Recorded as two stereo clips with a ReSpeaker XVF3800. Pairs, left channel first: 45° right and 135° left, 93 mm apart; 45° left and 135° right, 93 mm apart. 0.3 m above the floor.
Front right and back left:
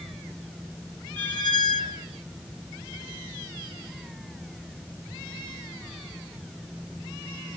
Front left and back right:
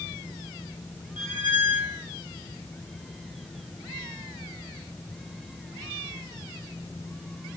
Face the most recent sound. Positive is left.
turn(degrees=30)